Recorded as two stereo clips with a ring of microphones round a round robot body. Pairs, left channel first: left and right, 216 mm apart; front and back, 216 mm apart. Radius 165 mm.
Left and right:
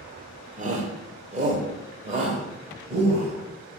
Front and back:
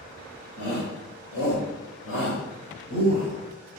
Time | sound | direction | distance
0.6 | a shout | 40° right | 2.5 m